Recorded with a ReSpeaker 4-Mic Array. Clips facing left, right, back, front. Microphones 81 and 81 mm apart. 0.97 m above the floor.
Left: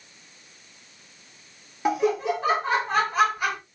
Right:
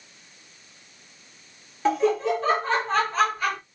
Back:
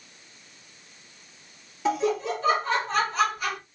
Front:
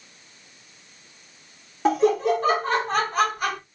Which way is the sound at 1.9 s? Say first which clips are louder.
Right 1 dB, front 6 dB; 15° left.